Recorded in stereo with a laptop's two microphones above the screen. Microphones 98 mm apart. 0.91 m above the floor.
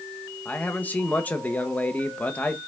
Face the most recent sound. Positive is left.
turn(degrees=15)  # may be behind; listen again after turning